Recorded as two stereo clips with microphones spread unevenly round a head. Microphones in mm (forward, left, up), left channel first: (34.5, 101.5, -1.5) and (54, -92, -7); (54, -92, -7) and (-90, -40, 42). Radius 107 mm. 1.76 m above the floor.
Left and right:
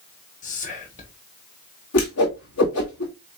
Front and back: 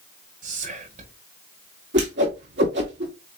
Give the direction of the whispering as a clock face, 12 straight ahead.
7 o'clock.